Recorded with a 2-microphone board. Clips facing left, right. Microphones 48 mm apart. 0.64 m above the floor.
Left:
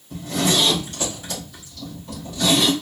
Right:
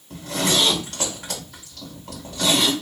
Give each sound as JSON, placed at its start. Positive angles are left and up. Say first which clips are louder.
{"t": 0.1, "sound": "a zipper", "louder": "left 1 dB", "side_deg": -65, "distance_m": 2.5}